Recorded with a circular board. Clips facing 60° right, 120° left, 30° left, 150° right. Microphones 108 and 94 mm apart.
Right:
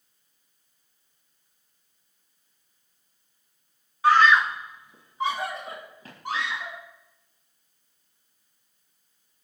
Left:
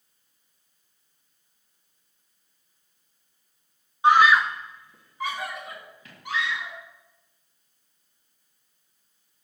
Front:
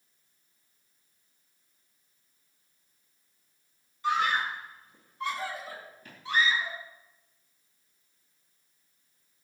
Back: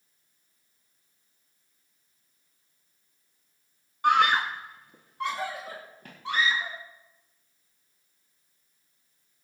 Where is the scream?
170° right, 0.7 m; by 6.8 s 110° right, 2.5 m.